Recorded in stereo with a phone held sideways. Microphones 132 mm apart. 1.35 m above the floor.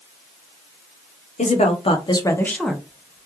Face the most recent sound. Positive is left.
turn(degrees=-25)  # may be behind; listen again after turning